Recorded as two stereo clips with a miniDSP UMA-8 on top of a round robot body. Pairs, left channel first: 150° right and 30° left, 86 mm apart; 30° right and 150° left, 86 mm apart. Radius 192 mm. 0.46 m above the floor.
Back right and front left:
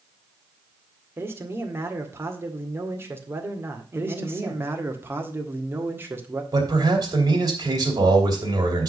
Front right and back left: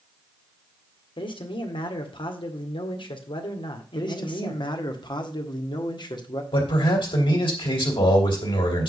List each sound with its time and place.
1.2 s a man speaking: 30° right, 1.9 m
4.0 s a man speaking: 30° right, 1.9 m
6.5 s a man speaking: 10° right, 3 m